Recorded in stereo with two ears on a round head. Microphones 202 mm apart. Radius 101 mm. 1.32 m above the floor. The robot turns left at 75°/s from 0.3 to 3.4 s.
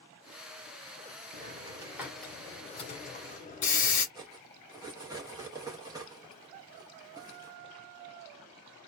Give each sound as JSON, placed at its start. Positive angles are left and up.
{"t": 1.3, "sound": "a hiss", "side_deg": -30, "distance_m": 1.1}
{"t": 4.2, "sound": "cutlery clinking", "side_deg": -15, "distance_m": 0.8}